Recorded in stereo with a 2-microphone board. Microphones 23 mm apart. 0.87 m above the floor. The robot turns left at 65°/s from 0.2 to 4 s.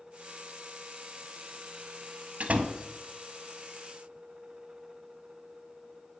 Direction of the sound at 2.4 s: 75° right (ahead or behind).